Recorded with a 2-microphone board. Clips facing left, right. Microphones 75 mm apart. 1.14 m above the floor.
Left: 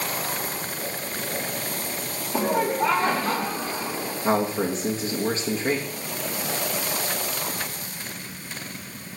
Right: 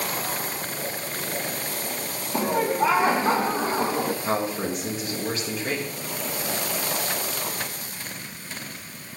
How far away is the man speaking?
About 1.8 m.